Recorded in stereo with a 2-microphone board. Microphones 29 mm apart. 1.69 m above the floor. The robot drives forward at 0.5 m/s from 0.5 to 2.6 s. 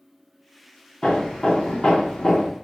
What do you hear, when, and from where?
1.0 s hammering: 30° left (ahead or behind), 0.9 m; by 2.5 s 35° left (ahead or behind), 0.7 m